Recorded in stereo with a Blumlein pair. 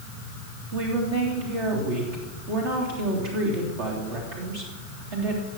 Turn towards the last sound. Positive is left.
turn(degrees=-55)